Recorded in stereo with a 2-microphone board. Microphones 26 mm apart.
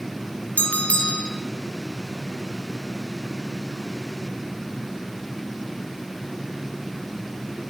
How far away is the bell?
About 2 m.